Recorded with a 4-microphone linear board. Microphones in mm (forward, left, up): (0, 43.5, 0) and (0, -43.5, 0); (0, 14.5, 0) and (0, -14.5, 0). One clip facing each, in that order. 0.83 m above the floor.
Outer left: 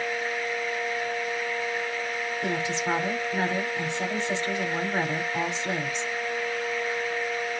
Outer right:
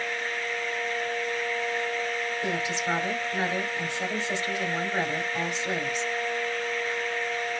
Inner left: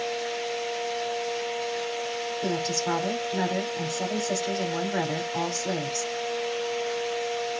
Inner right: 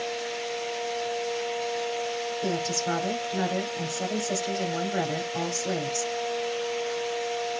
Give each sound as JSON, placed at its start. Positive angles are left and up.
{"t": 2.4, "sound": "a woman speaking", "side_deg": 25, "distance_m": 2.5}